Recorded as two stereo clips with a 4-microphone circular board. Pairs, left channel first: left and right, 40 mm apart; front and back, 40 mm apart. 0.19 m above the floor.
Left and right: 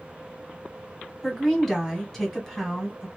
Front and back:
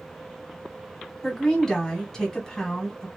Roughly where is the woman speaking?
Ahead left.